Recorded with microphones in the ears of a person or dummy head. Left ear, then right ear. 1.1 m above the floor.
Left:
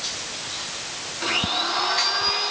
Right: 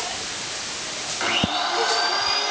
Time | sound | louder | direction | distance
1.2 | a blender | even | 45° right (ahead or behind) | 6 m